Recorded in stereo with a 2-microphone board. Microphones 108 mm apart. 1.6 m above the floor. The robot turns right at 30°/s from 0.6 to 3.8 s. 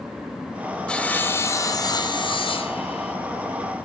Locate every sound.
0.9 s sawing: 10° left, 0.6 m; by 3.1 s 75° left, 0.6 m